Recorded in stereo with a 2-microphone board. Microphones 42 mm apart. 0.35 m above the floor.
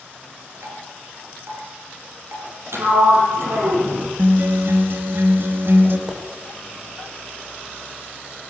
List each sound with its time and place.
0.6 s dripping: 75° right (ahead or behind), 8 m
2.7 s a sliding door: 85° right, 6 m
4.2 s a guitar: 55° right (ahead or behind), 3 m
6.1 s a pop: 20° right (ahead or behind), 8 m